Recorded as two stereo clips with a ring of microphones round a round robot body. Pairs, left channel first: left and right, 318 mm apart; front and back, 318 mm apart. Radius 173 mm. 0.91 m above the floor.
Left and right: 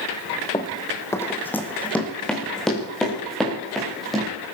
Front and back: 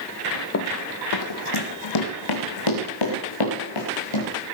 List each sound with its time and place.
0.5 s running footsteps: 20° left, 1.1 m; by 4.3 s straight ahead, 5 m